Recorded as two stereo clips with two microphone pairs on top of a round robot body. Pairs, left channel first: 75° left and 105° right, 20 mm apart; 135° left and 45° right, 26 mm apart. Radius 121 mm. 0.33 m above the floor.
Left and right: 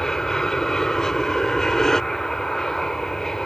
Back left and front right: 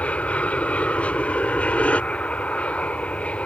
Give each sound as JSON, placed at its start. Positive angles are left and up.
{"t": 0.0, "sound": "an aircraft", "azimuth_deg": 140}